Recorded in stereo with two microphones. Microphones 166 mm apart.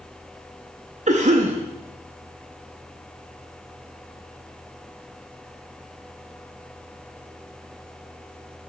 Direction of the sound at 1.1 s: 45° right (ahead or behind).